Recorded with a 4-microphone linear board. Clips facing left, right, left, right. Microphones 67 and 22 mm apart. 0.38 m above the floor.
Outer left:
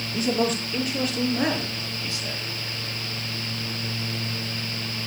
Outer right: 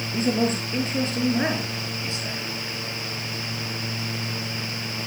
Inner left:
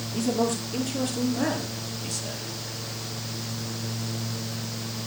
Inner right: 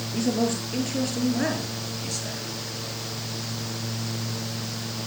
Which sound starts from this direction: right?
A man speaking, at 0.1 s.